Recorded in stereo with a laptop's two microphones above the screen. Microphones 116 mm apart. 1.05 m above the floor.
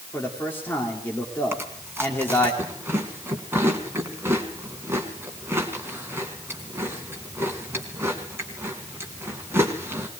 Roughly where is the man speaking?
Centre.